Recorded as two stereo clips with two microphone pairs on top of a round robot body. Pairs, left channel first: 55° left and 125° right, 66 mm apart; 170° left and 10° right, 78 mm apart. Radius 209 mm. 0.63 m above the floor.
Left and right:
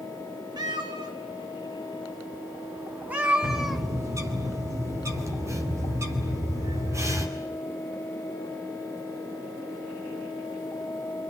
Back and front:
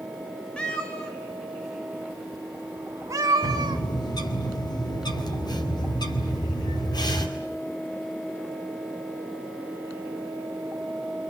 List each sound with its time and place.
0.6 s a cat meowing: 110° right, 2.5 m; by 3.9 s 30° right, 1.3 m
3.4 s a bird: 165° right, 4 m